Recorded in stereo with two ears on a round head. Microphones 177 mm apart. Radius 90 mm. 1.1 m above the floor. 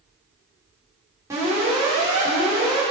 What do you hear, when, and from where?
1.3 s an alarm: 15° right (ahead or behind), 5.5 m